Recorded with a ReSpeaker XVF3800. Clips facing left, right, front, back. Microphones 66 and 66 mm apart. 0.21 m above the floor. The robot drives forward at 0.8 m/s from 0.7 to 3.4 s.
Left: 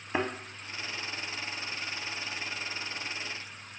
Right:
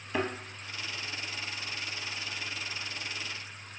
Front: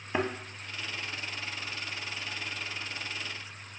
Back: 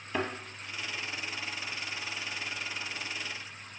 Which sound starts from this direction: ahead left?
A thud, at 0.1 s.